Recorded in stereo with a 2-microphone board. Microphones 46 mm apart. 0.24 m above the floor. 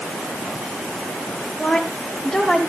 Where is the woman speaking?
15° left (ahead or behind), 4.5 m; by 2.6 s centre (ahead or behind), 5 m.